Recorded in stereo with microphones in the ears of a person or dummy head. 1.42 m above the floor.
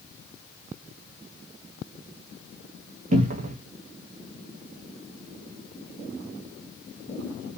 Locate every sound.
3.1 s a cupboard door: 40° right (ahead or behind), 0.8 m